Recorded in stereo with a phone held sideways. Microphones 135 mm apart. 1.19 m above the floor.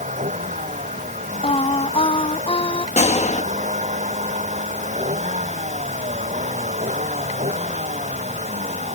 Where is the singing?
45° left (ahead or behind).